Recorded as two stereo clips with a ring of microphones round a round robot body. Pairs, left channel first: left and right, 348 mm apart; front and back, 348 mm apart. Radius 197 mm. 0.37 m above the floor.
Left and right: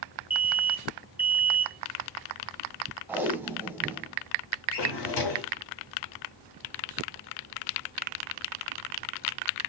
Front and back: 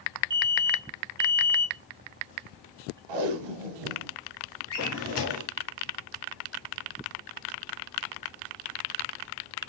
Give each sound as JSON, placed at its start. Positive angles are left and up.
{"t": 0.3, "sound": "an alarm", "azimuth_deg": -170, "distance_m": 1.0}
{"t": 3.1, "sound": "tape being pulled", "azimuth_deg": -175, "distance_m": 0.7}
{"t": 4.7, "sound": "a drawer", "azimuth_deg": 55, "distance_m": 1.0}